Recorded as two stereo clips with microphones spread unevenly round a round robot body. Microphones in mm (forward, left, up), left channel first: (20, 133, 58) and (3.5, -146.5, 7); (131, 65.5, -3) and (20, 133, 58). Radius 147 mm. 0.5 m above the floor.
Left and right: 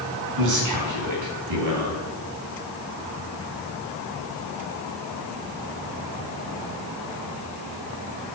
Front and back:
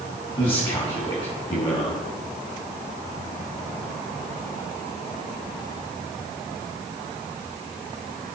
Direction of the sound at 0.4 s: 85° right.